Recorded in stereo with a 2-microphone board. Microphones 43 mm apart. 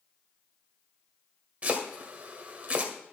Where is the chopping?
30° right (ahead or behind), 1.8 m.